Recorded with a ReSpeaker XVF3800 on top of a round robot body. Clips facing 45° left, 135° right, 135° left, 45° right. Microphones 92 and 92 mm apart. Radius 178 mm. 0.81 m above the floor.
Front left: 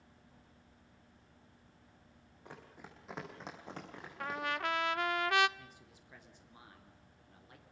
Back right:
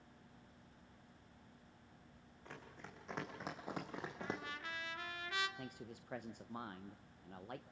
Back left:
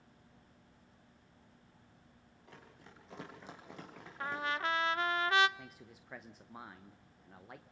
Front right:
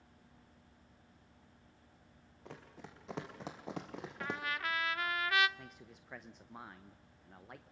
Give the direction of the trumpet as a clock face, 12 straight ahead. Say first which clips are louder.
Front left 12 dB, back left 4 dB; 10 o'clock.